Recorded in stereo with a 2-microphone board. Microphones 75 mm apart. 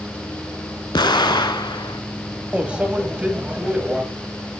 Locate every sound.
0.9 s an explosion: 80° left, 0.6 m
2.5 s a microwave: 15° right (ahead or behind), 1.0 m